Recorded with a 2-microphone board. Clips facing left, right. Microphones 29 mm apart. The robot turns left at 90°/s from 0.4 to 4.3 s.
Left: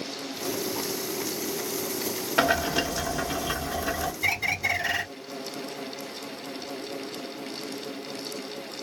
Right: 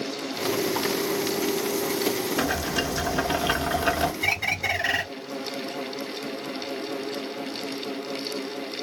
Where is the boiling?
45° left, 0.7 m; by 4.1 s 110° right, 0.7 m.